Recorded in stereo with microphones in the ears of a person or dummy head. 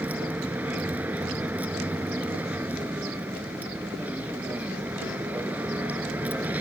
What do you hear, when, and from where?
0.0 s a vehicle: 10° right (ahead or behind)